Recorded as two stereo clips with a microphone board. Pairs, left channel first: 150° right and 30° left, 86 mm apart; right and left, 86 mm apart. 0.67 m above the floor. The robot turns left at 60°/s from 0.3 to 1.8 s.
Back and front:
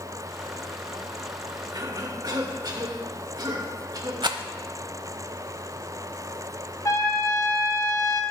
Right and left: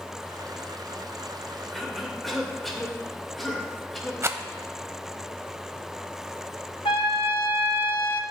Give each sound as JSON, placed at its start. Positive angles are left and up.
{"t": 1.7, "sound": "a cough", "azimuth_deg": 5, "distance_m": 2.5}
{"t": 4.2, "sound": "a rattle", "azimuth_deg": 35, "distance_m": 0.8}
{"t": 6.8, "sound": "a trumpet", "azimuth_deg": -100, "distance_m": 1.1}